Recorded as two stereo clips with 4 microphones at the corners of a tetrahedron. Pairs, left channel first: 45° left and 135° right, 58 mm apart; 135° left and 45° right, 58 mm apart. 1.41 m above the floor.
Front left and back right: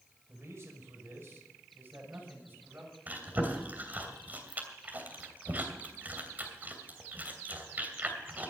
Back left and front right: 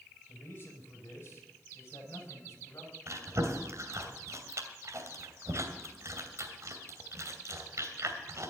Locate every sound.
0.3 s a man speaking: 175° right, 5 m; by 2.9 s 170° left, 6.5 m
3.1 s chewing: 75° right, 2.5 m